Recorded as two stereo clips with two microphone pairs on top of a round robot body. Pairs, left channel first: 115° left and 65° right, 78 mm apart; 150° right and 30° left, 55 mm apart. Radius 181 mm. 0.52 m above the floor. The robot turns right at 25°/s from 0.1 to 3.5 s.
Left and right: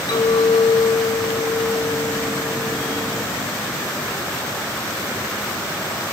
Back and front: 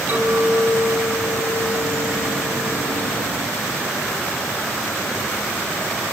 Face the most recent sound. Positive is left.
turn(degrees=175)